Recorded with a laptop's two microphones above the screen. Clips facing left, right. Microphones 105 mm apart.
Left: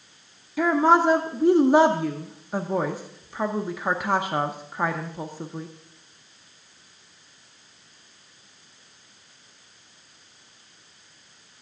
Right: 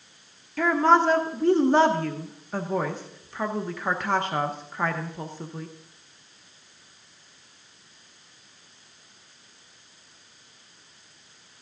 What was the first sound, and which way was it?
A woman speaking, 10° left (ahead or behind).